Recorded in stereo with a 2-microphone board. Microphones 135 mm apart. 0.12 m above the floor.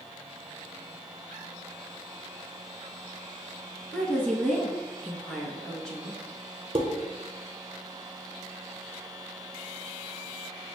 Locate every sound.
3.9 s a woman speaking: 5° left (ahead or behind), 1.1 m
6.8 s dishes clattering: 40° right (ahead or behind), 1.0 m